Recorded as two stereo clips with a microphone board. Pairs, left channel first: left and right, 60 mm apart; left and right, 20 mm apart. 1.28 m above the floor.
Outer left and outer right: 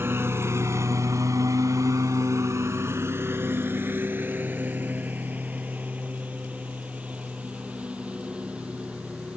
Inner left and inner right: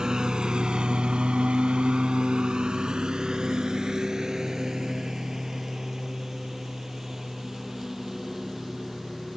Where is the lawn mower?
45° right (ahead or behind); by 9.4 s 15° right (ahead or behind).